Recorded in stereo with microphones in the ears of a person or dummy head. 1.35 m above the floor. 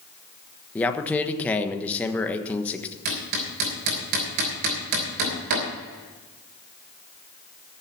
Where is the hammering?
60° right (ahead or behind), 3.5 m.